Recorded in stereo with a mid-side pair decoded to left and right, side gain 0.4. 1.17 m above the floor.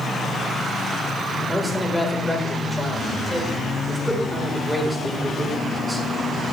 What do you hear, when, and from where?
1.5 s a man speaking: straight ahead, 5 m